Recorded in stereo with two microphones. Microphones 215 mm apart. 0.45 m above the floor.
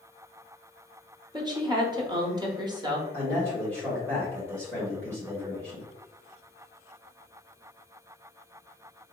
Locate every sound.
1.3 s a woman speaking: 20° right (ahead or behind), 0.9 m
3.1 s a man speaking: 5° left (ahead or behind), 1.8 m